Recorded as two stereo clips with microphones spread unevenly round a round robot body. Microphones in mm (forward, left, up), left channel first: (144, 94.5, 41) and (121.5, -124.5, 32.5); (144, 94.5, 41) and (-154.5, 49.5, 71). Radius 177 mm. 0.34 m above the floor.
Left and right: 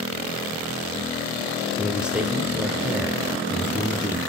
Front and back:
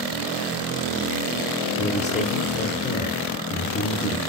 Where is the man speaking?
15° right, 0.9 m.